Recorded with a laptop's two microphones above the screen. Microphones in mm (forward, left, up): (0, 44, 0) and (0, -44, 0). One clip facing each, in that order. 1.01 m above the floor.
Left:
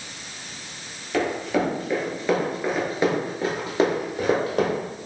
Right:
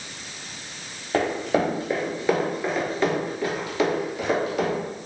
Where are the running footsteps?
30° right (ahead or behind), 1.4 m; by 4.8 s 50° left (ahead or behind), 1.5 m.